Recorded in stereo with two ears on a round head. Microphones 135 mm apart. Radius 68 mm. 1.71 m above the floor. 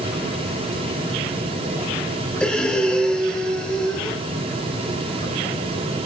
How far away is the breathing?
About 2.5 m.